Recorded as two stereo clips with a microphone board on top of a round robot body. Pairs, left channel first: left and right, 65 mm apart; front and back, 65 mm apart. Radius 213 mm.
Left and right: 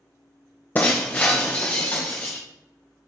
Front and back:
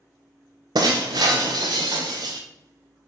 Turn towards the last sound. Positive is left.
turn(degrees=155)